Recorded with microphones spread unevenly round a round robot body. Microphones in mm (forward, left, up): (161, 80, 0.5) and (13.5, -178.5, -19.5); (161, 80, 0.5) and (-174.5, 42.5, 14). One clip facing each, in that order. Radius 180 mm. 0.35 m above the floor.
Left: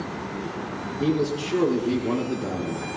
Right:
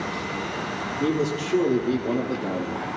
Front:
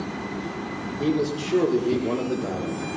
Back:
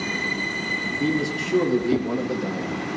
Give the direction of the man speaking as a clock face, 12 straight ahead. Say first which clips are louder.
Left 1 dB, front 1 dB; 8 o'clock.